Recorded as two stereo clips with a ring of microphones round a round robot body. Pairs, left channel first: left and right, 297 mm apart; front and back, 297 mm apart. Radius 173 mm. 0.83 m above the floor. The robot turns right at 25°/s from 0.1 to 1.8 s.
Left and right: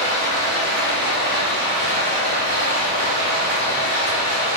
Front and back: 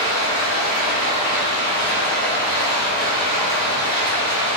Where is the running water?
160° left, 1.3 m; by 4.6 s 160° right, 1.3 m.